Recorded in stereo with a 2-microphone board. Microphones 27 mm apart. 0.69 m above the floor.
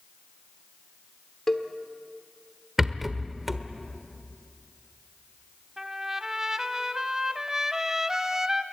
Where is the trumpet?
20° right (ahead or behind), 1.2 m.